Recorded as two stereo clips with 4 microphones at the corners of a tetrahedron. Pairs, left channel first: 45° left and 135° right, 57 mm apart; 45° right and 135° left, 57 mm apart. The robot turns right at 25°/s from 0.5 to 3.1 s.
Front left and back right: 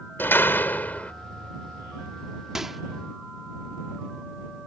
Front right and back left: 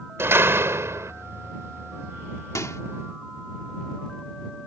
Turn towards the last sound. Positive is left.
turn(degrees=-40)